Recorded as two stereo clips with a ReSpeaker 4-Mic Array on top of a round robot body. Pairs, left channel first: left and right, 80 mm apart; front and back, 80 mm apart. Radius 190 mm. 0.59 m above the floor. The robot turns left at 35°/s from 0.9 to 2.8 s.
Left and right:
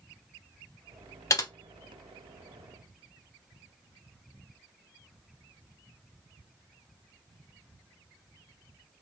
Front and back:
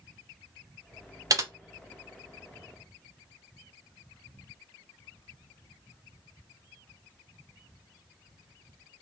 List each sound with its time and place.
1.3 s typing on a keyboard: 135° left, 0.8 m; by 1.5 s 130° left, 0.8 m